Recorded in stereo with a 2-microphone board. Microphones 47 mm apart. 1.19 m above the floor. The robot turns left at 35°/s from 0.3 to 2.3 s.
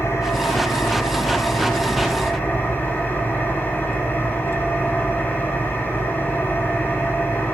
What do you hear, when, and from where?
0.0 s an engine running: 105° left, 8 m; by 7.5 s 35° left, 8 m